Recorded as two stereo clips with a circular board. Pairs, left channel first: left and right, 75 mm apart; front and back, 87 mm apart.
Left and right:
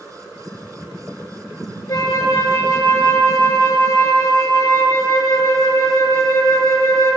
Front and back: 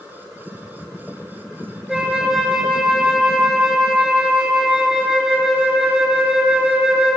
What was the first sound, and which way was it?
A flute, 95° left.